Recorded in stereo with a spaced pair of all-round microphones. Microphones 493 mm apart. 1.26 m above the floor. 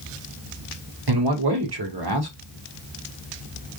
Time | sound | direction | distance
1.1 | a man speaking | 50° right (ahead or behind) | 1.9 m